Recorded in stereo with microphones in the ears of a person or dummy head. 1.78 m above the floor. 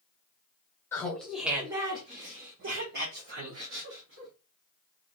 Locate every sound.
0.9 s laughter: 15° left (ahead or behind), 0.8 m; by 4.3 s 80° right, 1.5 m